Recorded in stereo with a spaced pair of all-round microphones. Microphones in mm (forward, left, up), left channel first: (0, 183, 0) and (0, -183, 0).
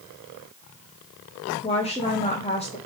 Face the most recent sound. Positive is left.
turn(degrees=15)  # may be behind; listen again after turning